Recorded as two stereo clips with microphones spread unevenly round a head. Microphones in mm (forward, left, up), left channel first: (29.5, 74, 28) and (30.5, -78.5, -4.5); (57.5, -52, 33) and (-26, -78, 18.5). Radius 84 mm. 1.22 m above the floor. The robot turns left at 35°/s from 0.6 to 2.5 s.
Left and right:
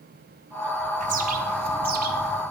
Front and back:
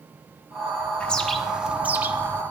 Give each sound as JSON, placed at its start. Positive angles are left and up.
{"t": 1.0, "sound": "a bird", "azimuth_deg": -65, "distance_m": 1.1}